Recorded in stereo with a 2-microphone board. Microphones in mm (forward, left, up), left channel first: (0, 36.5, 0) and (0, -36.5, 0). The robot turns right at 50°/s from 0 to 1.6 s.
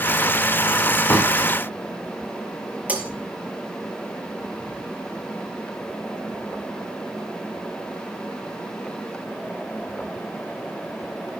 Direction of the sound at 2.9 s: 15° right (ahead or behind).